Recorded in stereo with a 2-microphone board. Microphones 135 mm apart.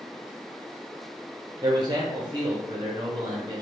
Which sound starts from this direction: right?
A man speaking, at 1.6 s.